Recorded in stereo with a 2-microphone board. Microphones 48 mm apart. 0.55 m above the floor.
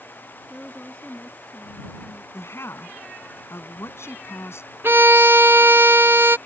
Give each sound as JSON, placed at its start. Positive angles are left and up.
{"t": 0.5, "sound": "a woman speaking", "side_deg": 25}
{"t": 2.3, "sound": "a woman speaking", "side_deg": 65}
{"t": 4.8, "sound": "a violin", "side_deg": -55}